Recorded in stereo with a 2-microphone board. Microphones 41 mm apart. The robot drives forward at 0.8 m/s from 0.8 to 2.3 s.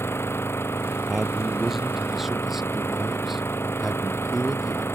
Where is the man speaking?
10° right (ahead or behind); by 4.8 s 5° right (ahead or behind).